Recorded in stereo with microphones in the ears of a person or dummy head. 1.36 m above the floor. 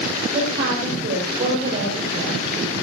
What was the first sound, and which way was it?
A woman speaking, 35° right (ahead or behind).